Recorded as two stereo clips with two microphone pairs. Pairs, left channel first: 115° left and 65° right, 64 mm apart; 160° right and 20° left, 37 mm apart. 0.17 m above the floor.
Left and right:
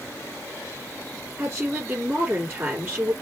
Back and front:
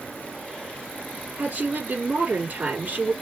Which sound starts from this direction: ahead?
A woman speaking, at 1.4 s.